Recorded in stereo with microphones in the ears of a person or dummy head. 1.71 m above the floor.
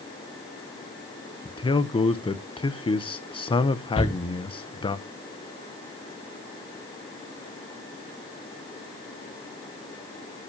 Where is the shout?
40° left (ahead or behind), 2 m.